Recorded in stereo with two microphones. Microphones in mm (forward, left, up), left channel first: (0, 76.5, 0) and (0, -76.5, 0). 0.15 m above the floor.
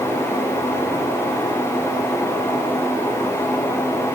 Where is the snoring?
I don't hear snoring.